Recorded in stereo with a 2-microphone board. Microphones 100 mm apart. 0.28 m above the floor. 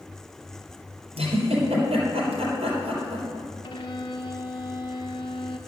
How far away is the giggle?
About 4 m.